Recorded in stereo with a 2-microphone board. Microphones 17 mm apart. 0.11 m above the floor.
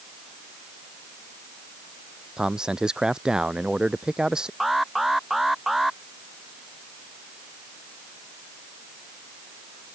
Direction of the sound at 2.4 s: 45° right (ahead or behind).